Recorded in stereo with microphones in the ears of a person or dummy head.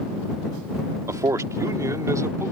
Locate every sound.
1.1 s a man speaking: 20° right (ahead or behind); by 2.5 s 15° right (ahead or behind)